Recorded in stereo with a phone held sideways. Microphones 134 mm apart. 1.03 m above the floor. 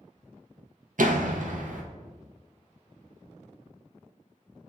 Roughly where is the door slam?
Right.